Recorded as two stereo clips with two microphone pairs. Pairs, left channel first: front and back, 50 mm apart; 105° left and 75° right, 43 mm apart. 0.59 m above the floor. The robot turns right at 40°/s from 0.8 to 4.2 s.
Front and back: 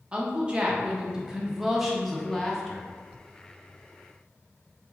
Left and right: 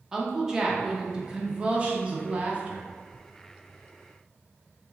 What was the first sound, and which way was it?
A woman speaking, 140° right.